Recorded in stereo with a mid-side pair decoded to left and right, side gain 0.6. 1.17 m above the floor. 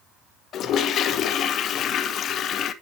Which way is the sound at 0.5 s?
50° left.